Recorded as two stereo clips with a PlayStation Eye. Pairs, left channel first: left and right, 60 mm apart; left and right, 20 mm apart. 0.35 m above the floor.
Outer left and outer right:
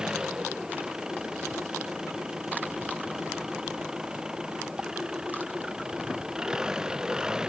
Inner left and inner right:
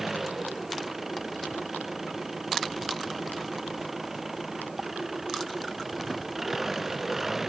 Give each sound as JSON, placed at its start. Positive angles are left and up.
{"t": 0.0, "sound": "an engine running", "side_deg": -10}